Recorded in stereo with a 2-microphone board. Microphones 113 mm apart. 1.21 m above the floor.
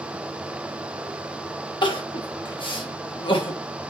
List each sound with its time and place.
1.8 s crying: 45° left (ahead or behind), 0.9 m